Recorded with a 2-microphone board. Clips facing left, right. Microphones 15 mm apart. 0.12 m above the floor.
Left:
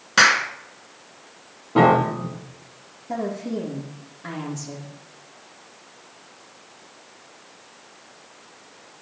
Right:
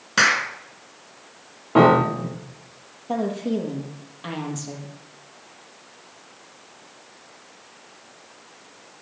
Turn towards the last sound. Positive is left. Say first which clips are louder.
# right 3 dB
turn(degrees=-55)  # may be behind; listen again after turning